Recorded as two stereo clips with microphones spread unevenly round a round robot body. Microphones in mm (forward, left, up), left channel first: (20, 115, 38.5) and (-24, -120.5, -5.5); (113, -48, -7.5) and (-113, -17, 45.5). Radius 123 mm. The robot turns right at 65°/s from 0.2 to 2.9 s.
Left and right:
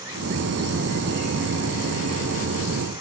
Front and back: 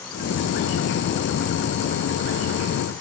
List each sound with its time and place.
Only background noise.